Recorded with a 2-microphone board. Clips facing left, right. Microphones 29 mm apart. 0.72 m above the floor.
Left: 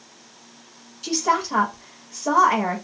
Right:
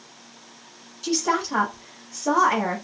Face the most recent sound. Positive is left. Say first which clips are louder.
# left 2 dB
turn(degrees=10)  # may be behind; listen again after turning